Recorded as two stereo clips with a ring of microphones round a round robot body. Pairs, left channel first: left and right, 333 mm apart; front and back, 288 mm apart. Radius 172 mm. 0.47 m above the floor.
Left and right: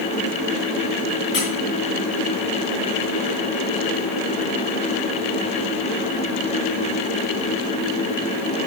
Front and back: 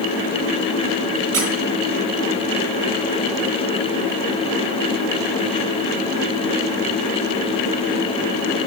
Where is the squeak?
145° left, 3.5 m.